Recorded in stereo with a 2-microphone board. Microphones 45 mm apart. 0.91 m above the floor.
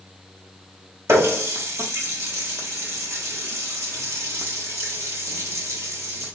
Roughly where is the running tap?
Right.